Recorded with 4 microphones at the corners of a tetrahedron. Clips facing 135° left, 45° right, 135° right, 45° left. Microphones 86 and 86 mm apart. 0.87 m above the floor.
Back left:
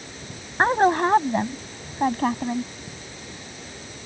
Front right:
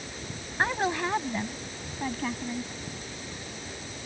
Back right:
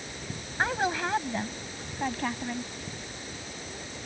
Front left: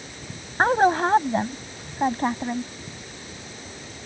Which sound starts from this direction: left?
A woman speaking, at 0.6 s.